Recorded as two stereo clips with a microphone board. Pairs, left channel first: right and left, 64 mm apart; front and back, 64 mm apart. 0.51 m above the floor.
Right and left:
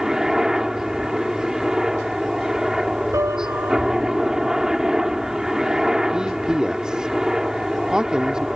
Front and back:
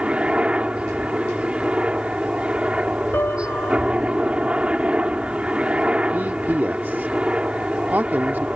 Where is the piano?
55° left.